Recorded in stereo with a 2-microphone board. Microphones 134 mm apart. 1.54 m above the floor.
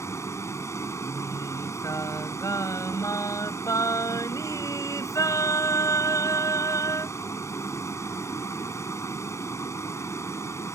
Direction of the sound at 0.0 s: 20° left (ahead or behind).